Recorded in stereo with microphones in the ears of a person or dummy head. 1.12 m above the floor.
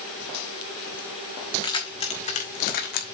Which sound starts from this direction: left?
Keys jangling, at 1.6 s.